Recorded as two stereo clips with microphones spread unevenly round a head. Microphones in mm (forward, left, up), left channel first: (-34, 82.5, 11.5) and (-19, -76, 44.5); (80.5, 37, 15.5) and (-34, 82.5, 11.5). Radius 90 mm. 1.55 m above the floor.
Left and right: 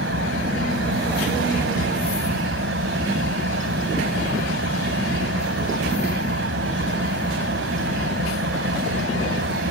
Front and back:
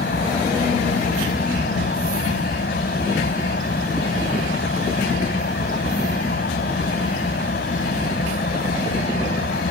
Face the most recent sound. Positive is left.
turn(degrees=-55)